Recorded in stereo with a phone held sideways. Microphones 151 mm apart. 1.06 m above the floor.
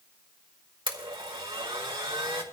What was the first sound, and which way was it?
A blender, 30° right (ahead or behind).